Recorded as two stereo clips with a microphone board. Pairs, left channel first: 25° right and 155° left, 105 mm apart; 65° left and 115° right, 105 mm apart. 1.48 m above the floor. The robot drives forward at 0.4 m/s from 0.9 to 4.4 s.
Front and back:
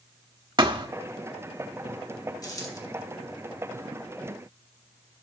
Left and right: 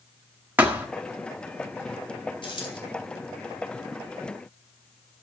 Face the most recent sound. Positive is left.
turn(degrees=40)